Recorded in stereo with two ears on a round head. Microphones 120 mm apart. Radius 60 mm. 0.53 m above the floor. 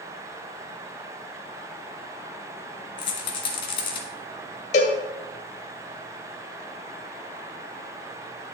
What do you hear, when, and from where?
3.0 s a rattle: 40° left (ahead or behind), 2 m
4.7 s a cowbell: 60° left (ahead or behind), 1.7 m